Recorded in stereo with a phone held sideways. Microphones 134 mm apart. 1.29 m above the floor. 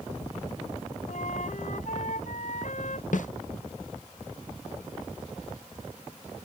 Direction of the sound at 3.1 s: 70° left (ahead or behind).